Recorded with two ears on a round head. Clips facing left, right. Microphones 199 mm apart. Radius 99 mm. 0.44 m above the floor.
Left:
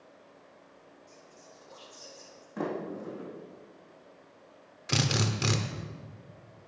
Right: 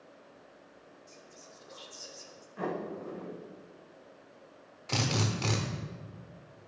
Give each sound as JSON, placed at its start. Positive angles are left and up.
{"t": 1.1, "sound": "whispering", "side_deg": -25, "distance_m": 0.9}
{"t": 2.6, "sound": "a sliding door", "side_deg": 85, "distance_m": 4.0}
{"t": 4.9, "sound": "a drill", "side_deg": 20, "distance_m": 1.0}